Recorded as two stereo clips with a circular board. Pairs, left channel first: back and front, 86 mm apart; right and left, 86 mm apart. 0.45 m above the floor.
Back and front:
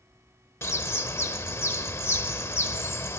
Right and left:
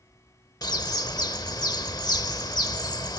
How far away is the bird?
About 0.7 m.